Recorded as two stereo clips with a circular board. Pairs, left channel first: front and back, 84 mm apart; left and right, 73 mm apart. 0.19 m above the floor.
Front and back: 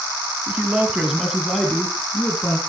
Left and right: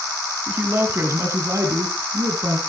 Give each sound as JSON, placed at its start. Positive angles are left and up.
{"t": 0.5, "sound": "a man speaking", "azimuth_deg": -130, "distance_m": 1.3}